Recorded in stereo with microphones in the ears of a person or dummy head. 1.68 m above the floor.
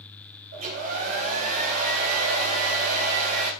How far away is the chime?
No chime in this recording.